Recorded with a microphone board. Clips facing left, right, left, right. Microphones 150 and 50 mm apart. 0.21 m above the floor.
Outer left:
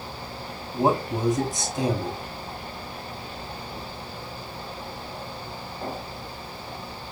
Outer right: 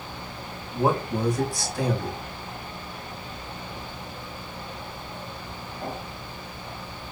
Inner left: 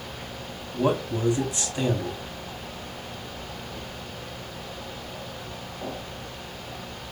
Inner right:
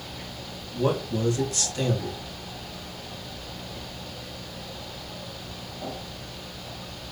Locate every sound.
0.7 s a man speaking: 20° left (ahead or behind), 1.0 m